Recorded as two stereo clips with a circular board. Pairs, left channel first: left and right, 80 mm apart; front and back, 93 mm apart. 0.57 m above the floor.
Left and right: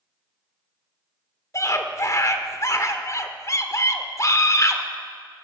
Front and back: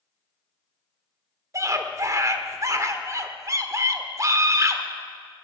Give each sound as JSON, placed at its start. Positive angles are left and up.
{"t": 1.5, "sound": "a scream", "azimuth_deg": 130, "distance_m": 1.2}